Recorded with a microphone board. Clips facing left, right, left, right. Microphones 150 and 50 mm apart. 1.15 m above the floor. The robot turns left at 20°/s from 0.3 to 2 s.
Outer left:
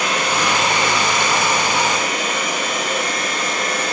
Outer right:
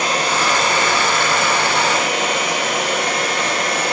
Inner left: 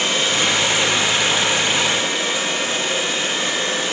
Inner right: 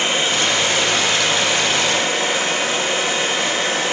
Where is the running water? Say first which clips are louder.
Outer right 1 dB, even; 30° right, 3 m; by 3.9 s 65° right, 3 m.